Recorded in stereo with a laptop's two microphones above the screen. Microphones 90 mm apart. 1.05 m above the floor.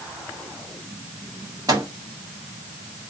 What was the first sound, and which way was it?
A microwave, 40° right (ahead or behind).